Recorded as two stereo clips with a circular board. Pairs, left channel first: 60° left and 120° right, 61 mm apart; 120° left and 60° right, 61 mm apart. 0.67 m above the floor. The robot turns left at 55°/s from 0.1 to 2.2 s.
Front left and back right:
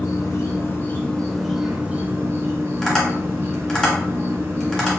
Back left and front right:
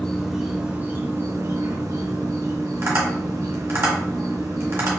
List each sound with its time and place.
0.0 s an insect: 40° left, 0.7 m; by 5.0 s 75° right, 0.7 m
2.8 s tapping: 20° right, 1.3 m